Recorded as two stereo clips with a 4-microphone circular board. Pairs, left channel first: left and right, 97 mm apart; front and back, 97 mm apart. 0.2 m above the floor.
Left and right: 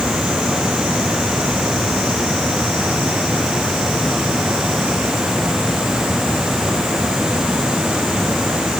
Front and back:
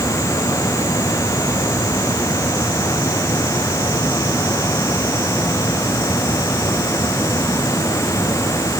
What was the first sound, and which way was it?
Only background noise.